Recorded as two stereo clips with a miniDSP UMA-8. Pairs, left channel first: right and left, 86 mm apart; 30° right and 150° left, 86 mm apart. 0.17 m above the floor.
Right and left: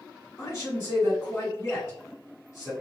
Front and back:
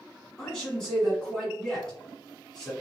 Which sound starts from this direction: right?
A man speaking, at 0.4 s.